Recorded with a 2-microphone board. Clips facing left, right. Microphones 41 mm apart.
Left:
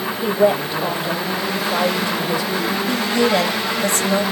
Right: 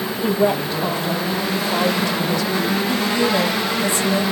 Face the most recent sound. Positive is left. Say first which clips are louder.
# left 4 dB
turn(degrees=60)  # may be behind; listen again after turning